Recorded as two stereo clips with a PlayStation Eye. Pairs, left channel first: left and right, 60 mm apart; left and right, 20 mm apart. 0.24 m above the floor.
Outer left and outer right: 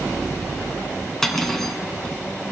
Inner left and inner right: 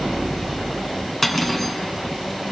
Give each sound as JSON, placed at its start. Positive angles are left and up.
{"t": 1.2, "sound": "cutlery clinking", "side_deg": 5, "distance_m": 1.6}